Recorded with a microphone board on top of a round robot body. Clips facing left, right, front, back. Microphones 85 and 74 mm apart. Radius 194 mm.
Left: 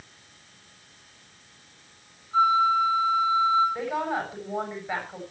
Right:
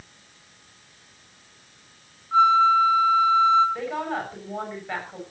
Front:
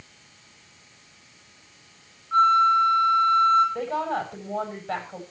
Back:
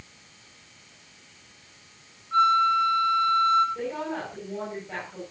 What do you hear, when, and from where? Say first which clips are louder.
2.3 s a flute: right 4 dB, front 3 dB; 65° right, 8.5 m
3.8 s a woman speaking: even, front 4 dB; 5° left, 8 m